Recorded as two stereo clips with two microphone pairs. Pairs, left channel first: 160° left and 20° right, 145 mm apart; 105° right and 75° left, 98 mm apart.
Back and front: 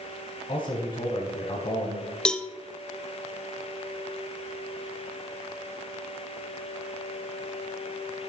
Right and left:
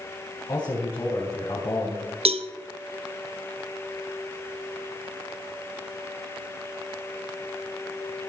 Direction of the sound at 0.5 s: 150° right.